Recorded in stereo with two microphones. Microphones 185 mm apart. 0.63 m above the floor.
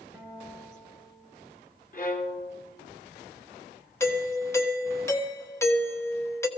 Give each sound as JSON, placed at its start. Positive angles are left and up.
{"t": 0.1, "sound": "a guitar", "side_deg": -10, "distance_m": 5.0}
{"t": 1.9, "sound": "a violin", "side_deg": 50, "distance_m": 1.6}
{"t": 4.0, "sound": "a doorbell", "side_deg": 15, "distance_m": 1.2}